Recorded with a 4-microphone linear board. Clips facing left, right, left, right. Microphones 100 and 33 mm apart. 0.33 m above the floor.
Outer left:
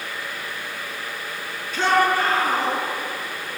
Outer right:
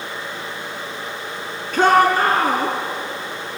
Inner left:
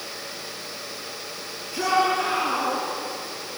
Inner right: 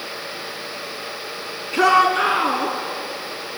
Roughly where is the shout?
Right.